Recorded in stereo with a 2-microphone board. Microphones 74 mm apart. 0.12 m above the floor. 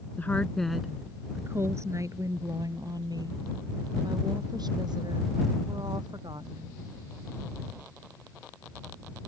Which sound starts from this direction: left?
A woman speaking, at 0.2 s.